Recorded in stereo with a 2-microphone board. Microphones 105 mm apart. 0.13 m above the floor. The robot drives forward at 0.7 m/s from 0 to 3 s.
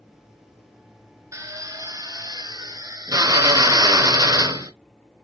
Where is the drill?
30° right (ahead or behind), 1.3 m.